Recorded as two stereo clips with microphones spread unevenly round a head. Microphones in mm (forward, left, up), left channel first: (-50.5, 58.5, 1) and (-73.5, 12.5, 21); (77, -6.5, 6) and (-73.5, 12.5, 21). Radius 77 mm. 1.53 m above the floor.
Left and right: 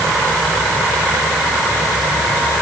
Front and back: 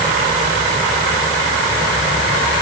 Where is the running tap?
I don't hear a running tap.